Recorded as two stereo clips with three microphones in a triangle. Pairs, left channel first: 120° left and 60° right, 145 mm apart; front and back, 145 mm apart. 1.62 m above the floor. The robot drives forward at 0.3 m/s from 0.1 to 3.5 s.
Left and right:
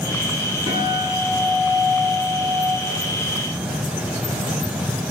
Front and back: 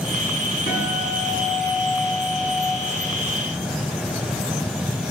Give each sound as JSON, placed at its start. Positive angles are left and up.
{"t": 0.7, "sound": "a guitar", "azimuth_deg": 0, "distance_m": 6.0}